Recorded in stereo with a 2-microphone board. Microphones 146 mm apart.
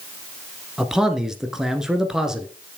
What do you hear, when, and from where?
0.8 s a man speaking: 5° right (ahead or behind), 1.4 m